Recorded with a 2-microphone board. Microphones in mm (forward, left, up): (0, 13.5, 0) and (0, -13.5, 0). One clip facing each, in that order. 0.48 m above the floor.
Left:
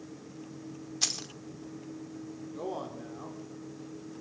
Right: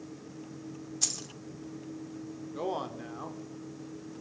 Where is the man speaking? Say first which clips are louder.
Right 3 dB; 30° right (ahead or behind), 1.1 m.